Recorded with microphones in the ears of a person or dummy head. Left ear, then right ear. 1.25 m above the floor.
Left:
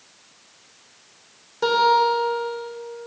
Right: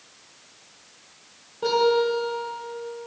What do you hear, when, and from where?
1.6 s a guitar: 65° left (ahead or behind), 2.5 m